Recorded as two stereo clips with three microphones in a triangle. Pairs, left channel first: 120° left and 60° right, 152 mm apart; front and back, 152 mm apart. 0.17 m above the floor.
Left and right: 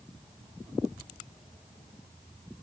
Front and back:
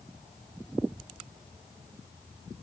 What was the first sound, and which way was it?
Only background noise.